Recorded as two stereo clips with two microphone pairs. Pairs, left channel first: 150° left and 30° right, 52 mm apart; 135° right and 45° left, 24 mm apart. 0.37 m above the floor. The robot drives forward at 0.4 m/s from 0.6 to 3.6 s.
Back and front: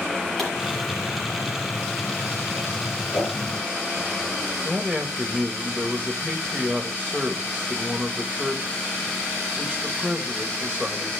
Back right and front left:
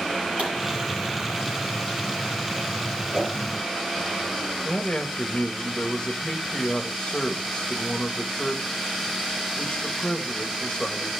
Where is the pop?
70° left, 6 m.